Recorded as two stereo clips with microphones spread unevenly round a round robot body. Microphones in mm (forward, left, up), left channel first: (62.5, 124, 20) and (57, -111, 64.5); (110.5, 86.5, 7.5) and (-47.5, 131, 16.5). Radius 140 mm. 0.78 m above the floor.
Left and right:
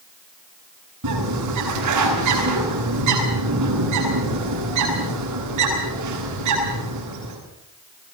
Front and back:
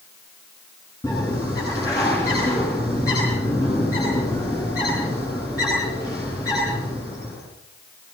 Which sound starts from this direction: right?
A bird, at 1.0 s.